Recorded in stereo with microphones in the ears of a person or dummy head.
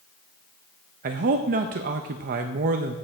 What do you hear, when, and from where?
1.0 s a man speaking: 45° right (ahead or behind), 0.5 m